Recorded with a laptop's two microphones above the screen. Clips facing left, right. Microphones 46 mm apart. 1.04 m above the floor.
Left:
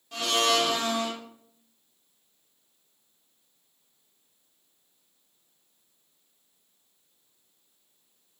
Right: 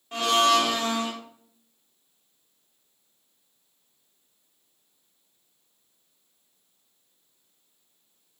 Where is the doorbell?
I don't hear a doorbell.